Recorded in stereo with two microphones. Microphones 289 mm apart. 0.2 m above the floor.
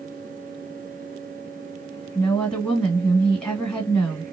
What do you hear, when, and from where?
2.1 s a woman speaking: 5° left (ahead or behind), 1.7 m